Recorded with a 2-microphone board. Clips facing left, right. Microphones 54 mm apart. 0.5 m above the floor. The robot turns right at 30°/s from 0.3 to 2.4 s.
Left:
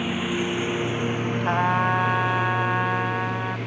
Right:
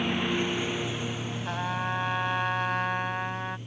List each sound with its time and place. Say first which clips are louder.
0.0 s a lawn mower: left 2 dB; 5° left (ahead or behind); by 3.7 s 85° left
1.4 s a trumpet: left 9 dB; 45° left (ahead or behind); by 3.6 s 15° left (ahead or behind)